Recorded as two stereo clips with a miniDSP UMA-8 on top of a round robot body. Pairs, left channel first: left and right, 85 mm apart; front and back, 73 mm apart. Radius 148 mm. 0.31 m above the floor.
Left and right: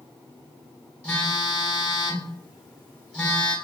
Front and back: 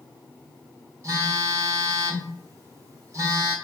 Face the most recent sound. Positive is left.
turn(degrees=165)